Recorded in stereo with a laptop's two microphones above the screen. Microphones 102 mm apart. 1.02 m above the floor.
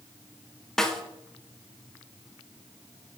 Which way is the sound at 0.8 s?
5° left (ahead or behind).